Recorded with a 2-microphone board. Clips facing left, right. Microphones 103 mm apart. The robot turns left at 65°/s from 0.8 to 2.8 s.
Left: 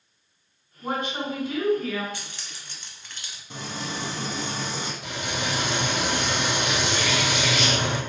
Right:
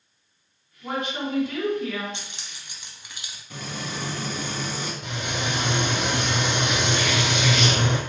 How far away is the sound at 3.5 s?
About 0.7 m.